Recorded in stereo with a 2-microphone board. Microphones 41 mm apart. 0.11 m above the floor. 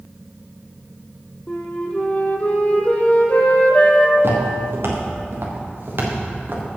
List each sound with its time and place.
1.5 s a flute: 35° left (ahead or behind), 1.5 m
4.2 s footsteps: 75° right (ahead or behind), 3.5 m; by 6.6 s 50° right (ahead or behind), 3.5 m